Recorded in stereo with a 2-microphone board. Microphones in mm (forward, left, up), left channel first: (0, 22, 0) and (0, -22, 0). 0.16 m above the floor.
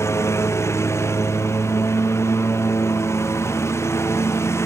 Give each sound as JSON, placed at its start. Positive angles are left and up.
{"t": 0.0, "sound": "a lawn mower", "side_deg": 85}